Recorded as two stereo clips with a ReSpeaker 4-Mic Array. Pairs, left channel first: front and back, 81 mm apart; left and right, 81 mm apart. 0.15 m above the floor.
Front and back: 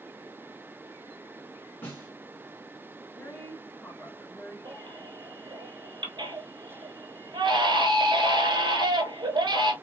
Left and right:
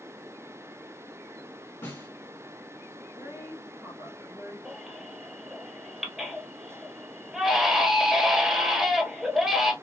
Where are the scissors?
I don't hear scissors.